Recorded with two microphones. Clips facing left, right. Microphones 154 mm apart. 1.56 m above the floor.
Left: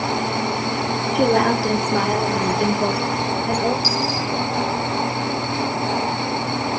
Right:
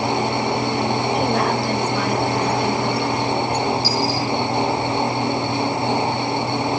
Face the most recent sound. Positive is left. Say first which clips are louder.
# right 2 dB
turn(degrees=75)  # may be behind; listen again after turning